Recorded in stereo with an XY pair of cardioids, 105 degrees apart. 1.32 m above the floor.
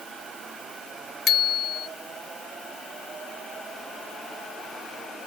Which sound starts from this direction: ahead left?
A bicycle bell, at 1.3 s.